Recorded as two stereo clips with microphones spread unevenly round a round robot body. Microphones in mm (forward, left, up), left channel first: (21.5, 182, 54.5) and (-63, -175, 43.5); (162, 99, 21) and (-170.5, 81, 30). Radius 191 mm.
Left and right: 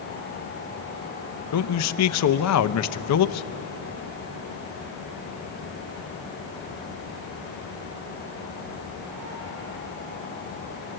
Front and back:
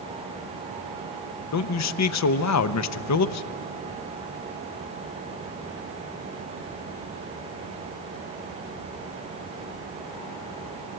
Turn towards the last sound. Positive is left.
turn(degrees=35)